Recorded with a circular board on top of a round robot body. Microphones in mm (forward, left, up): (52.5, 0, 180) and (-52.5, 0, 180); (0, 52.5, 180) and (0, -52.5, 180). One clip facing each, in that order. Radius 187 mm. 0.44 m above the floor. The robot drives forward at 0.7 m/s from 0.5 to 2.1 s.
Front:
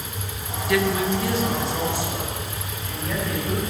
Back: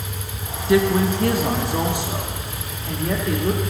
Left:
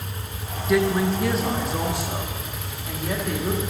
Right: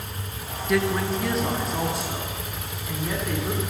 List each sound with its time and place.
0.7 s a woman speaking: straight behind, 0.8 m